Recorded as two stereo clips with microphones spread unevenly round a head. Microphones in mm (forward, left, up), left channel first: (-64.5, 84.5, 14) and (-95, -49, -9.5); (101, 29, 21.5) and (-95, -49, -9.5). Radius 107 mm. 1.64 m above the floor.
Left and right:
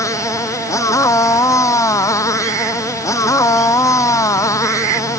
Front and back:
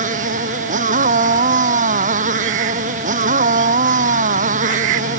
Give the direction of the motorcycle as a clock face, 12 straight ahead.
7 o'clock.